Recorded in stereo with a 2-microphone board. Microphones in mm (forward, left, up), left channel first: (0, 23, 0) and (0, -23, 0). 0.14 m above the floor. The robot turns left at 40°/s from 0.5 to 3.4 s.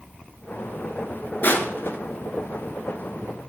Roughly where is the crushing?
Left.